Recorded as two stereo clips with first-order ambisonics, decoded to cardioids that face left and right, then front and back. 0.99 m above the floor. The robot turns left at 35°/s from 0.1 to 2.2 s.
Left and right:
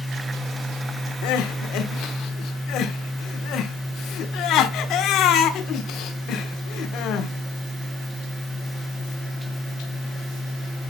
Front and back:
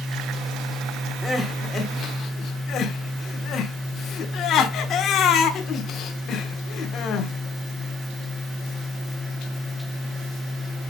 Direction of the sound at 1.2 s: 85° left.